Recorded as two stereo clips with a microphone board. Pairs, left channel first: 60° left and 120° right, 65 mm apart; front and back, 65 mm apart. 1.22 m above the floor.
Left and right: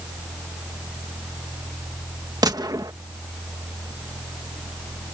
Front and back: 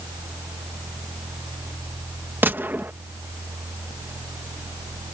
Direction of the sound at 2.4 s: 120° right.